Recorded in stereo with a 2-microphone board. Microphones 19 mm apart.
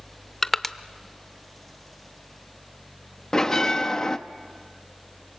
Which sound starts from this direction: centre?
Crushing, at 0.4 s.